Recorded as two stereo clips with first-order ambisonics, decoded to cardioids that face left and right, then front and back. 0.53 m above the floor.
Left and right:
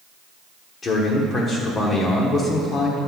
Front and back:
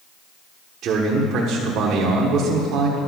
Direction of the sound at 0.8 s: 150° left.